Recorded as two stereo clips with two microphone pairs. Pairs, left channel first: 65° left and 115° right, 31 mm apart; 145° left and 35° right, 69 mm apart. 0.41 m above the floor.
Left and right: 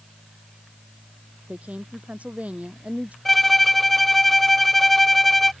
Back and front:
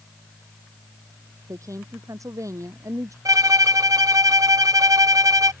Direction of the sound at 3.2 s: 20° right.